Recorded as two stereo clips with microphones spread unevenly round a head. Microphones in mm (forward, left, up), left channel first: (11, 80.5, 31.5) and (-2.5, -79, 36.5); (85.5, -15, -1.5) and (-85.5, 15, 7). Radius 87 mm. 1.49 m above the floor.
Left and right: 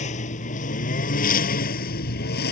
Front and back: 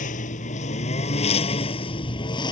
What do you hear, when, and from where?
0.0 s a lawn mower: 40° left; by 2.5 s 55° left